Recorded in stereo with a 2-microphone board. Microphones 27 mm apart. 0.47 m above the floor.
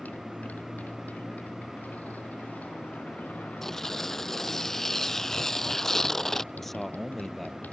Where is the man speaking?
5° left (ahead or behind).